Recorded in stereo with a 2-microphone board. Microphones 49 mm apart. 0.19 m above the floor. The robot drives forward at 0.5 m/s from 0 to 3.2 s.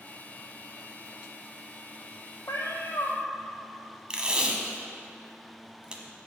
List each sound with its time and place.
2.5 s a cat meowing: 80° left, 1.1 m; by 3.2 s 75° left (ahead or behind), 1.1 m
4.1 s tape being pulled: 20° right (ahead or behind), 0.9 m